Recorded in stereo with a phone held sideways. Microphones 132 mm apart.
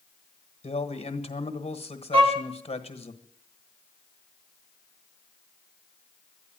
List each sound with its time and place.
0.6 s a man speaking: 45° left (ahead or behind), 1.4 m
2.1 s a violin: 40° right (ahead or behind), 2 m